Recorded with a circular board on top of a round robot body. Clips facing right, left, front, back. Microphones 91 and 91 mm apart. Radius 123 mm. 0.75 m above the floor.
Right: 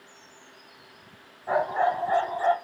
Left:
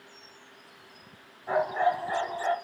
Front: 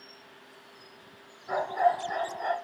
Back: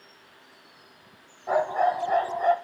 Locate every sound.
1.5 s a dog barking: 170° right, 1.9 m; by 2.5 s 150° right, 2.5 m